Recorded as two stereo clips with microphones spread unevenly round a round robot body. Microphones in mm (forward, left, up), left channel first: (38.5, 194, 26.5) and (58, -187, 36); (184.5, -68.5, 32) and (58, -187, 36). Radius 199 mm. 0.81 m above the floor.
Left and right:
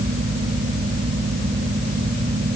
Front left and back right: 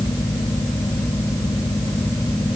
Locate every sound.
Only background noise.